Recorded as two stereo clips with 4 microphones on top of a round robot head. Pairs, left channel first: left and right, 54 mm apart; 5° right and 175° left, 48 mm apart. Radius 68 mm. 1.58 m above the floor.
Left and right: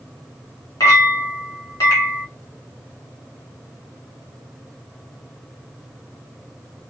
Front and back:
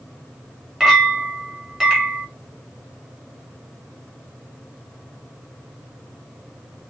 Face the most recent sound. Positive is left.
turn(degrees=95)